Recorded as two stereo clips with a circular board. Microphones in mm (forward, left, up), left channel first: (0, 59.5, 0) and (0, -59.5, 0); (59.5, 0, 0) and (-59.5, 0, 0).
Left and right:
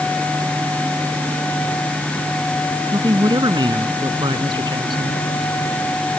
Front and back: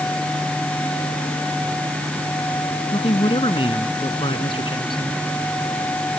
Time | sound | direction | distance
2.9 | a man speaking | 40° right | ?